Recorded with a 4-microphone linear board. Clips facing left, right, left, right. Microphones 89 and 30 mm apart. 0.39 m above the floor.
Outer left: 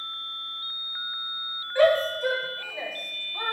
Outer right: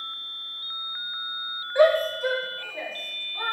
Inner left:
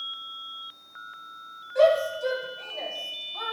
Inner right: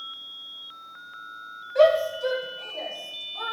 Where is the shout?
15° right (ahead or behind), 3 m; by 3.5 s 25° left (ahead or behind), 3.5 m.